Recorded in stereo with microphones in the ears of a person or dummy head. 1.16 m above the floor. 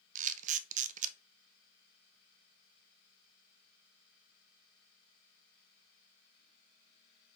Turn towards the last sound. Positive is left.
turn(degrees=-40)  # may be behind; listen again after turning